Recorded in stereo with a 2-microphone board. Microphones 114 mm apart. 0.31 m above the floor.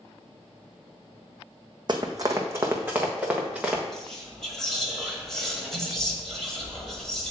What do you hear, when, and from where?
1.9 s running footsteps: 40° right (ahead or behind), 0.8 m; by 3.8 s 5° right (ahead or behind), 1.7 m
3.9 s whispering: 5° left (ahead or behind), 1.5 m